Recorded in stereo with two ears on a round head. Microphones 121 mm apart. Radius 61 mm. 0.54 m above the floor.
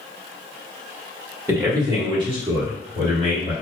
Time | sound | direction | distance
1.5 | a man speaking | 20° right (ahead or behind) | 1.0 m